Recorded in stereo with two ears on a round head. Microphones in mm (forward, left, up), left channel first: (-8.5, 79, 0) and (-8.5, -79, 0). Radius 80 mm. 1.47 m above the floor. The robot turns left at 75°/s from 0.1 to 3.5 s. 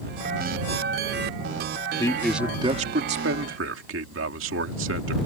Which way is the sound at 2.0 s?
20° left.